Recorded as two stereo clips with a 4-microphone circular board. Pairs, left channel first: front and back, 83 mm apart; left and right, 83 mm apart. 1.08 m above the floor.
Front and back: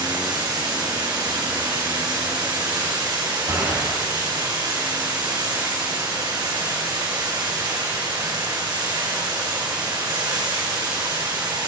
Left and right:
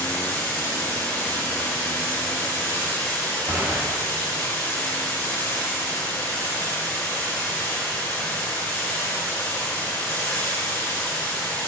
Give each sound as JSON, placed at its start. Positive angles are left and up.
{"t": 0.0, "sound": "running water", "azimuth_deg": 150, "distance_m": 4.5}
{"t": 3.5, "sound": "a gunshot", "azimuth_deg": -150, "distance_m": 3.0}